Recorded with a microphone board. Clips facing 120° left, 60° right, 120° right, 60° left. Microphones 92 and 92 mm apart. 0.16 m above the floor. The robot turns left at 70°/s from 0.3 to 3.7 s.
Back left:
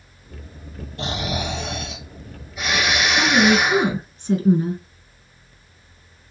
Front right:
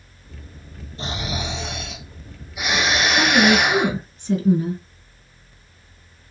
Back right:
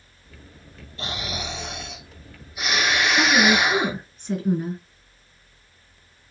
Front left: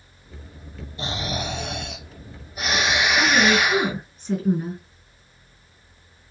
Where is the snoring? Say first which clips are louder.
Back left 2 dB, front left 3 dB; 130° left, 1.5 m; by 3.9 s 60° right, 1.5 m.